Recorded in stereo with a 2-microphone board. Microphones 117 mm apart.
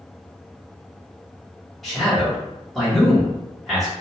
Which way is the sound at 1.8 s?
Centre (ahead or behind).